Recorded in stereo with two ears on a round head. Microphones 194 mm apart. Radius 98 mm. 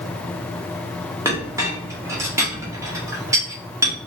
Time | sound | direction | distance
1.2 | a clink | 15° right (ahead or behind) | 0.8 m